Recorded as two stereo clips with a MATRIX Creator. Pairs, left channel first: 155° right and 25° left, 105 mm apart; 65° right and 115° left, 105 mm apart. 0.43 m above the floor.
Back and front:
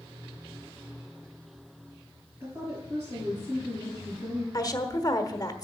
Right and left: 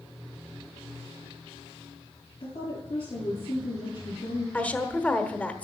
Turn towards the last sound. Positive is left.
turn(degrees=-135)